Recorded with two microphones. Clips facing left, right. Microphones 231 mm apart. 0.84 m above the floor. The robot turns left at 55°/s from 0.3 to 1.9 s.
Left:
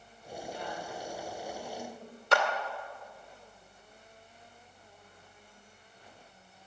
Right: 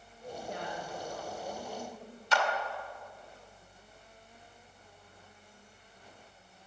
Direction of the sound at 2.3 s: 65° left (ahead or behind).